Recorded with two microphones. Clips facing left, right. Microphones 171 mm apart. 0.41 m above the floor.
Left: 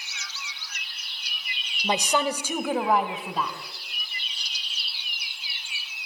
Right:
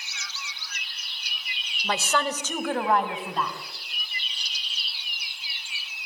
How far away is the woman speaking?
About 1.3 m.